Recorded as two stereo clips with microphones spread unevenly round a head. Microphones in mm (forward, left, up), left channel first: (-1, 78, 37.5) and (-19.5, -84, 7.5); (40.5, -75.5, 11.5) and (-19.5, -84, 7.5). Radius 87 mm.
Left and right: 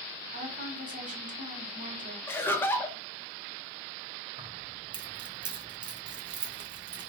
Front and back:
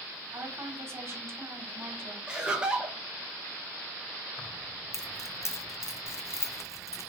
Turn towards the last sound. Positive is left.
turn(degrees=-30)